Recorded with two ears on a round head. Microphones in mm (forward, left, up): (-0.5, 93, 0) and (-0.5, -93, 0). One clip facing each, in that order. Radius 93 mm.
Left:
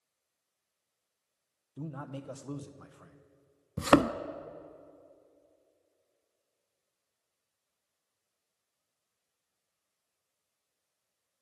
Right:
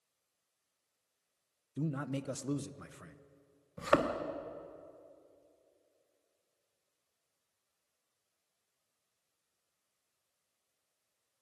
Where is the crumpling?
No crumpling in this recording.